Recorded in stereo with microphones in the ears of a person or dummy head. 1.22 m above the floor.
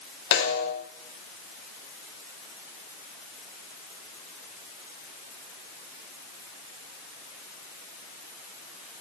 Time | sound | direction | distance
0.3 | a snare drum | 70° left (ahead or behind) | 8.5 m